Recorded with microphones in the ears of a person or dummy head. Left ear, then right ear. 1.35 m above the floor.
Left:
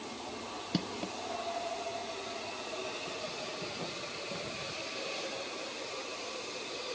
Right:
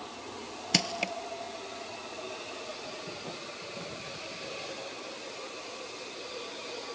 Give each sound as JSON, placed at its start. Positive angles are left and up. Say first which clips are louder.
{"t": 0.7, "sound": "crushing", "louder": "right 10 dB", "side_deg": -75}